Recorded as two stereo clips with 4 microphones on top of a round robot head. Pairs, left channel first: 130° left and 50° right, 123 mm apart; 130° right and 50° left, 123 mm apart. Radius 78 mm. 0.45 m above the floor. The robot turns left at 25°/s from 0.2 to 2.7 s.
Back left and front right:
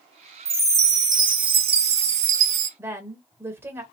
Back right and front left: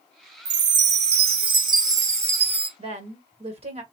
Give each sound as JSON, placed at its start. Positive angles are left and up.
{"t": 0.5, "sound": "a chime", "azimuth_deg": 25, "distance_m": 0.8}
{"t": 2.8, "sound": "a woman speaking", "azimuth_deg": 20, "distance_m": 1.7}